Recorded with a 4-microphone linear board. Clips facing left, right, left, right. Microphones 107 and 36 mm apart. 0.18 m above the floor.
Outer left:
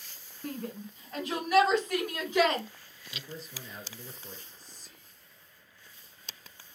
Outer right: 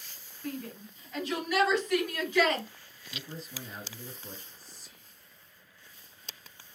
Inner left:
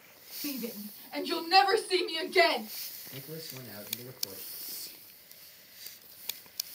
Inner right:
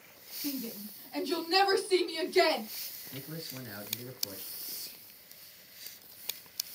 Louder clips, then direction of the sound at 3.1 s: Outer right 1 dB, inner right 1 dB; 35° right (ahead or behind).